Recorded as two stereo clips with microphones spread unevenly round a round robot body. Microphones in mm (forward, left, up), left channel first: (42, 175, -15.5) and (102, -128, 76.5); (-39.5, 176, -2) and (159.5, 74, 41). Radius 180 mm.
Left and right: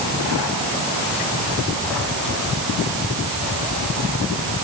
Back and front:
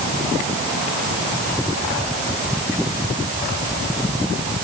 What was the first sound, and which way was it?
Only background noise.